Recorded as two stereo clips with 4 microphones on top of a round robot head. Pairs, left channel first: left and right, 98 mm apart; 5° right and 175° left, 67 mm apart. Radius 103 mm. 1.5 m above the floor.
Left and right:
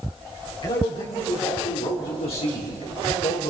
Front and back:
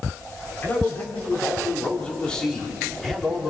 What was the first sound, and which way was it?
A man speaking, 50° left.